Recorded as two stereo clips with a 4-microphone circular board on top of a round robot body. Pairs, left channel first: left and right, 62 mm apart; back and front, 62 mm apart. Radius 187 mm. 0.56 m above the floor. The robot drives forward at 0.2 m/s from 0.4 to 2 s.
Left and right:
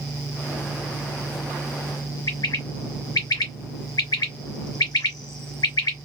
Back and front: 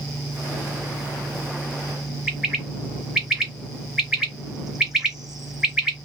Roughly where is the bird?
Left.